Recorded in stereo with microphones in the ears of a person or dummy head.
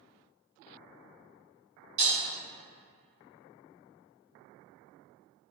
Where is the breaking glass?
35° right (ahead or behind), 1.2 m.